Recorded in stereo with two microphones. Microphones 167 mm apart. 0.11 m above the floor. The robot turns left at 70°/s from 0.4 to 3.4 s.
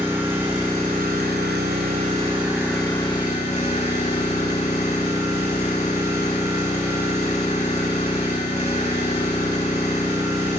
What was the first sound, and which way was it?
An engine running, 15° right.